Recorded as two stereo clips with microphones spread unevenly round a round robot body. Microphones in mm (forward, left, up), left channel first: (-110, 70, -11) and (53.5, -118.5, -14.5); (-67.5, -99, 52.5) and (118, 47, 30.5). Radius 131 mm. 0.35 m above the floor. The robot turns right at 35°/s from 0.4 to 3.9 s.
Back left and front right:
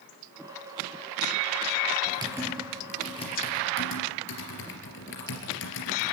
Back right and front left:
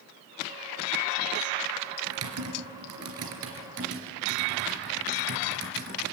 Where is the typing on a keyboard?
20° left, 3.5 m; by 6.1 s 85° left, 3.5 m.